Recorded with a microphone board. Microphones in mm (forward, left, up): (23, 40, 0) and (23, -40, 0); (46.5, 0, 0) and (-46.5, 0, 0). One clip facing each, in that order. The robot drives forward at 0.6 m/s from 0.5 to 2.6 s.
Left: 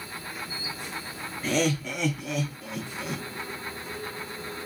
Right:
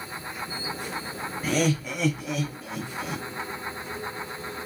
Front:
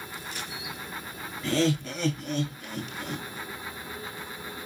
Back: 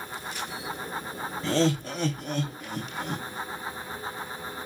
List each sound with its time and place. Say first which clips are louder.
1.4 s laughter: right 1 dB, back 1 dB; 170° right, 1.1 m; by 3.2 s 175° right, 1.6 m